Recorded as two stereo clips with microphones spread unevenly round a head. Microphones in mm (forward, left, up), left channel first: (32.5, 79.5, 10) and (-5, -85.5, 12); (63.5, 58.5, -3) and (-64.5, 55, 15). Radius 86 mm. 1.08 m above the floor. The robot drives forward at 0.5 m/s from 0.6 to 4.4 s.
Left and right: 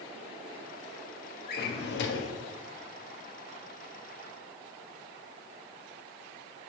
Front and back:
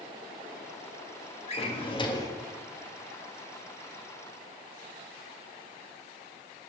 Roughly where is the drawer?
Ahead left.